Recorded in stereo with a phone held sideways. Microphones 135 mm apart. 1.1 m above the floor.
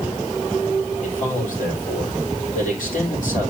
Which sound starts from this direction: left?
A man speaking, at 1.0 s.